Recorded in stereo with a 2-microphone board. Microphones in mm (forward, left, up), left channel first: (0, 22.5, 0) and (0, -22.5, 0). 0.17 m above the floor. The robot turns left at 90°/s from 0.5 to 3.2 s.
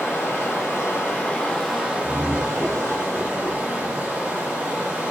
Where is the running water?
105° left, 1.0 m; by 5.1 s 140° right, 1.0 m.